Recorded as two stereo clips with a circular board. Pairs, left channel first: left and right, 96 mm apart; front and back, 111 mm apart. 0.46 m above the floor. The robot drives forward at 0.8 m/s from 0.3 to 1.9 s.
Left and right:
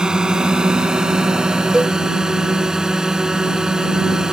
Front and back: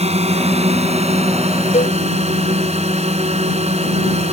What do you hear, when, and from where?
0.0 s a drone: 170° right; by 4.3 s 175° right
1.7 s a cowbell: 5° right